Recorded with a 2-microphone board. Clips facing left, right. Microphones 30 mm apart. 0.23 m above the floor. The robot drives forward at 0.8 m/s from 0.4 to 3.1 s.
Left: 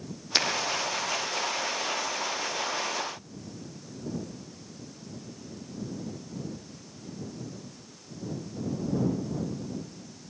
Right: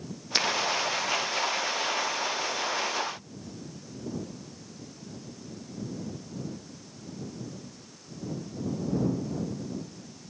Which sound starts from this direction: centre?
A finger snap, at 0.3 s.